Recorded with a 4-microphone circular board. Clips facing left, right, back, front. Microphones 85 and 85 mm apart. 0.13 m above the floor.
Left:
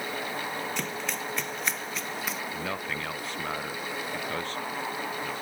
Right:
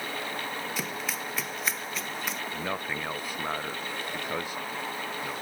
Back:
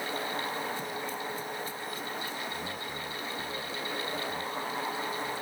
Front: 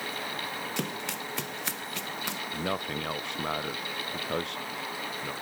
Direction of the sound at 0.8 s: 5° right.